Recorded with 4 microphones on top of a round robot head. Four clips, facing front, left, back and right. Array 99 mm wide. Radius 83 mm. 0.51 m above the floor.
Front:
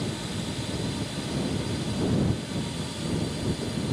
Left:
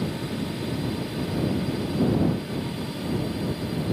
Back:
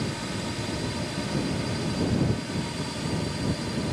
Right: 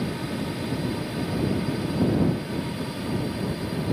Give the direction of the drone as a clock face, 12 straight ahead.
5 o'clock.